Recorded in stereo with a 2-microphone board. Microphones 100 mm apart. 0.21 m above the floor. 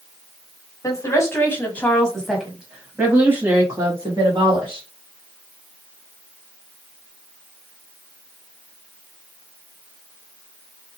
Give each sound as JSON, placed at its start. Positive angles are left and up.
{"t": 0.8, "sound": "a woman speaking", "side_deg": 35, "distance_m": 1.5}